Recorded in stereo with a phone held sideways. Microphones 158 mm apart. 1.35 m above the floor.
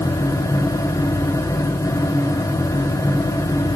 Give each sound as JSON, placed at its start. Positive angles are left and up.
{"t": 0.0, "sound": "a fan", "side_deg": 20, "distance_m": 0.7}